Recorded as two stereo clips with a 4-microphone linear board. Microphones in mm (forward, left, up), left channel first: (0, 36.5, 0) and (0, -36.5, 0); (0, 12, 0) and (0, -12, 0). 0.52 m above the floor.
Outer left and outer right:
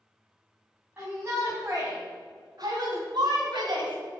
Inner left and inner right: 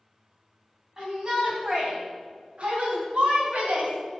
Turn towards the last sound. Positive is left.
turn(degrees=-75)  # may be behind; listen again after turning